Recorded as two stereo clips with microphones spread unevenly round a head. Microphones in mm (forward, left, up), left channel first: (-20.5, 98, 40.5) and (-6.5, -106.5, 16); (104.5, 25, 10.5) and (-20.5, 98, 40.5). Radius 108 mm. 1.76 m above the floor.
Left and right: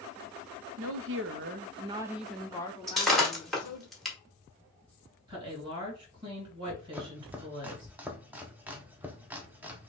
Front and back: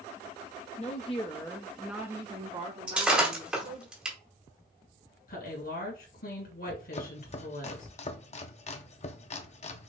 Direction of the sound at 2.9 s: 160° left.